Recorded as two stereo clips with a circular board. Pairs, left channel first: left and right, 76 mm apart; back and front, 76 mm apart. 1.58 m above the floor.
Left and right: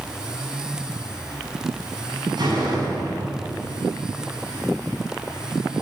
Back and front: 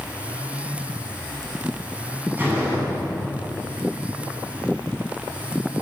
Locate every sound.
2.4 s a door slam: 65° right, 9.5 m